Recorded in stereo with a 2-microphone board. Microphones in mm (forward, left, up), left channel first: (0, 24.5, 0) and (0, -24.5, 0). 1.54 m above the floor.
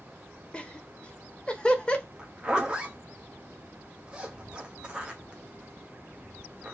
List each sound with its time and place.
0.5 s laughter: 20° left (ahead or behind), 0.7 m
2.2 s a zipper: 20° right (ahead or behind), 0.8 m